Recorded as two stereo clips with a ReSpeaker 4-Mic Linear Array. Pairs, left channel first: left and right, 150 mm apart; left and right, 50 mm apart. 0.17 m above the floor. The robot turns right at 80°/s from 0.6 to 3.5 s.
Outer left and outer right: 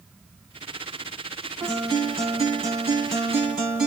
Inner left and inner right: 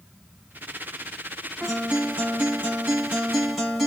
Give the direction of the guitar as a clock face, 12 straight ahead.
5 o'clock.